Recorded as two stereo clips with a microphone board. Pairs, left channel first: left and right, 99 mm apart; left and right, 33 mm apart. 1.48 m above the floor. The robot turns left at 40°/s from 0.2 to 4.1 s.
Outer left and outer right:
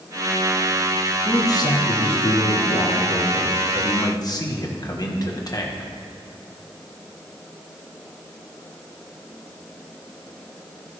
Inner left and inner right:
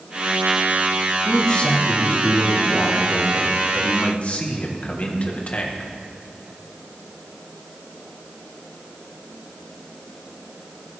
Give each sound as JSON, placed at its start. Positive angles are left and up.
{"t": 1.2, "sound": "a man speaking", "azimuth_deg": 155, "distance_m": 1.3}